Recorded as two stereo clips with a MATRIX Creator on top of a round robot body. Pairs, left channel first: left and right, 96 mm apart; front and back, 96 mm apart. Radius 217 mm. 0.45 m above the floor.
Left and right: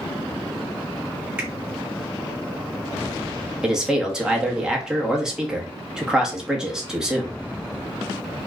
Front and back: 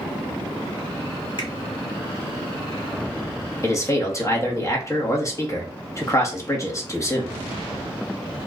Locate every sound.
1.4 s a finger snap: 15° right, 1.8 m
3.6 s a man speaking: 15° right, 1.2 m